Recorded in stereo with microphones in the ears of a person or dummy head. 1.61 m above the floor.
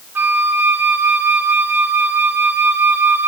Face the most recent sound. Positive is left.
turn(degrees=-15)  # may be behind; listen again after turning